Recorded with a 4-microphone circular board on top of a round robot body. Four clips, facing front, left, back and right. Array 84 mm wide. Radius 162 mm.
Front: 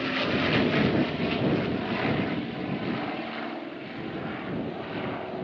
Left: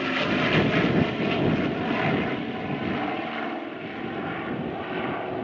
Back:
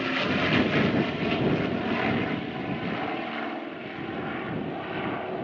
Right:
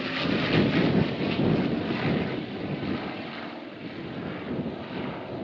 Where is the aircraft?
115° left; by 5.4 s 120° left.